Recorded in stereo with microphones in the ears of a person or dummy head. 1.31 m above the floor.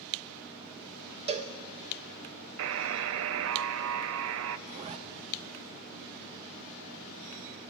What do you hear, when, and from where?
1.3 s a cowbell: 30° right (ahead or behind), 0.7 m
2.6 s a buzzer: 70° right (ahead or behind), 0.5 m
4.7 s a zipper: 35° right (ahead or behind), 0.8 m